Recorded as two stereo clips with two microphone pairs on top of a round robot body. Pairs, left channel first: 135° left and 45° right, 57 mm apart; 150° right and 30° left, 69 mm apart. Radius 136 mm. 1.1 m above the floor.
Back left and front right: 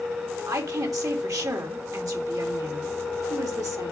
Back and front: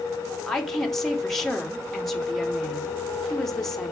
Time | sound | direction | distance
0.5 | a woman speaking | 65° right | 3.5 m